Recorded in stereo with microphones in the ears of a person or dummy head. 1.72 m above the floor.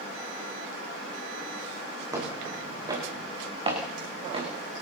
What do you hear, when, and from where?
2.1 s footsteps: 20° right (ahead or behind), 7.5 m; by 4.5 s 35° right (ahead or behind), 8 m